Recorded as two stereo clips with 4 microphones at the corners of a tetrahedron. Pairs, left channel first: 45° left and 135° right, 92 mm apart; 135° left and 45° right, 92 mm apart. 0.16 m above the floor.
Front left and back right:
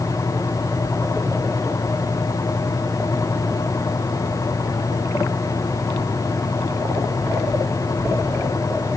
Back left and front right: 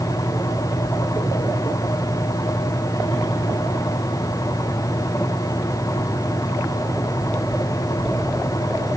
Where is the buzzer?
I don't hear a buzzer.